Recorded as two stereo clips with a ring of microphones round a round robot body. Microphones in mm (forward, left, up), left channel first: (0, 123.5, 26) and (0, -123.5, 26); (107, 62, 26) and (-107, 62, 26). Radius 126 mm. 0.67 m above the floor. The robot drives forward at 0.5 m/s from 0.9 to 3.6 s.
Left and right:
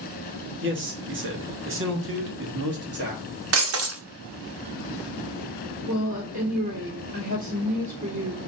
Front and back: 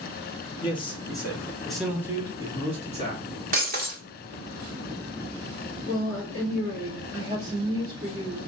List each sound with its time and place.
0.6 s a man speaking: 65° right, 1.2 m; by 3.2 s 130° right, 1.4 m
3.5 s breaking glass: 125° right, 0.7 m
5.8 s a woman speaking: 150° right, 2.0 m